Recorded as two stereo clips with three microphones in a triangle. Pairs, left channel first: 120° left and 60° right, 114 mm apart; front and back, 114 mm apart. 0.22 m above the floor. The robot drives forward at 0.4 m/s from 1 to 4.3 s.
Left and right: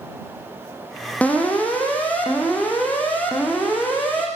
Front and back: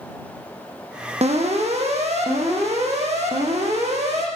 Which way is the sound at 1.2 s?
165° right.